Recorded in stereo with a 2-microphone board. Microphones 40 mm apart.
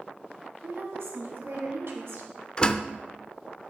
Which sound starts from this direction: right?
A woman speaking, at 0.6 s.